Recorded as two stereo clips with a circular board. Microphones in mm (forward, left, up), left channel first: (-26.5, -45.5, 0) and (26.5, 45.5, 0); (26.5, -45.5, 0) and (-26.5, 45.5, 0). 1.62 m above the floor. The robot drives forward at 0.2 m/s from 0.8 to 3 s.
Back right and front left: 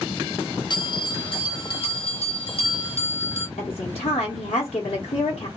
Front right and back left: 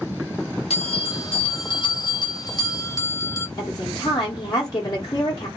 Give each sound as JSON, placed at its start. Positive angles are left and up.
{"t": 0.7, "sound": "a bell", "azimuth_deg": -80, "distance_m": 0.6}
{"t": 3.6, "sound": "a woman speaking", "azimuth_deg": -110, "distance_m": 0.8}